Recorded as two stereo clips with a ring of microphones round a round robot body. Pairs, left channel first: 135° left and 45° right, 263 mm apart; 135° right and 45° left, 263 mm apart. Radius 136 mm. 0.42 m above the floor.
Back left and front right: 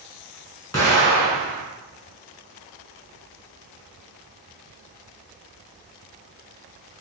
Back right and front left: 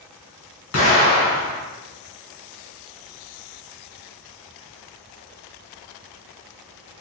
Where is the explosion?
150° right, 1.8 m.